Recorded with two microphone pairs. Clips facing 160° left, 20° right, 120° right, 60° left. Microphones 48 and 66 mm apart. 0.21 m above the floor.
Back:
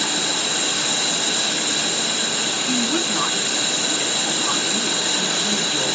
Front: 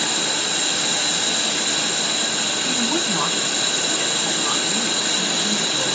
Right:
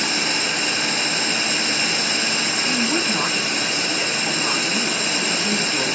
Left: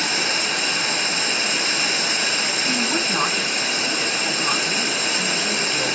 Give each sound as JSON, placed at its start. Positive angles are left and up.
{"t": 2.6, "sound": "a woman speaking", "azimuth_deg": 10, "distance_m": 1.4}